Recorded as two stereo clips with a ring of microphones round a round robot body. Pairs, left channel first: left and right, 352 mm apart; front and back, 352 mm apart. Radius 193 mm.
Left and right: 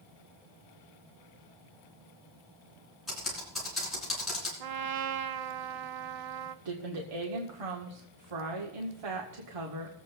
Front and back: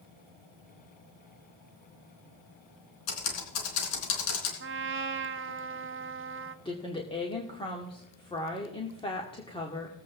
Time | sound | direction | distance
3.1 | typing on a keyboard | straight ahead | 3.5 m
4.6 | a trumpet | 120° right | 1.0 m
6.7 | a woman speaking | 75° right | 1.8 m